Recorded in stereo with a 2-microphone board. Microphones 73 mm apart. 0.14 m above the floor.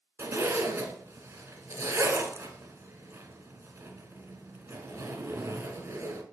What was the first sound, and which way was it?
A zipper, 35° right (ahead or behind).